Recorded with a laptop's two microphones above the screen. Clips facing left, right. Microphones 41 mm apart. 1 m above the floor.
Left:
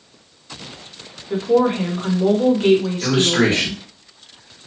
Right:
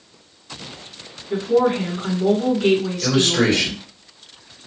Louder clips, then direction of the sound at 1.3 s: Left 1 dB; 30° left (ahead or behind).